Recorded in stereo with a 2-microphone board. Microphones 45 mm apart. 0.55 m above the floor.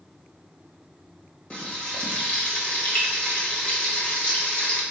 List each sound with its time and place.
1.5 s frying: 25° left (ahead or behind), 1.3 m